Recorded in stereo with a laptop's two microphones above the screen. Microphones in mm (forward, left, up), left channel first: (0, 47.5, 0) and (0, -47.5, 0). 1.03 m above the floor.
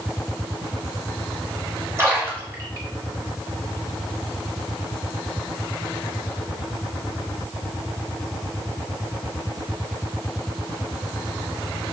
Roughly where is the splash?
Right.